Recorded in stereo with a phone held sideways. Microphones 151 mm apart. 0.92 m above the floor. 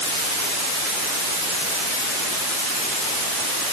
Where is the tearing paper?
No tearing paper in this recording.